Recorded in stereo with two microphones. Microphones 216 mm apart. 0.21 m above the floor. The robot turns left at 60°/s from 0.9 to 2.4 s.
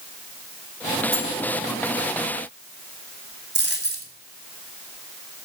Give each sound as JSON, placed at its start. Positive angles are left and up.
{"t": 1.1, "sound": "cutlery clinking", "side_deg": -25, "distance_m": 5.5}
{"t": 3.5, "sound": "a dropped coin", "side_deg": -50, "distance_m": 1.7}